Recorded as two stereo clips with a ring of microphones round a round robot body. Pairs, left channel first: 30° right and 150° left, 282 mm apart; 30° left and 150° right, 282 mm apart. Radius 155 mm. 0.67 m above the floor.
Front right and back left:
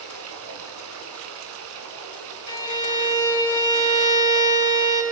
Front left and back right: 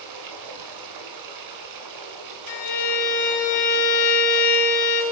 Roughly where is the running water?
Behind.